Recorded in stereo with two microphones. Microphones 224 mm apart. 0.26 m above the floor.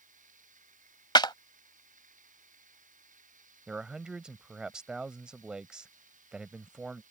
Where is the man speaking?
5° right (ahead or behind).